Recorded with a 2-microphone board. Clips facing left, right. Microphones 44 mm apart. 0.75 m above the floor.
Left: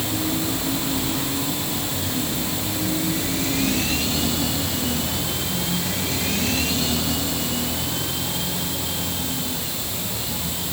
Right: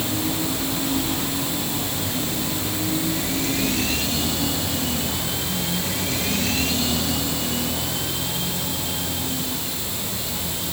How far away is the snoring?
I don't hear snoring.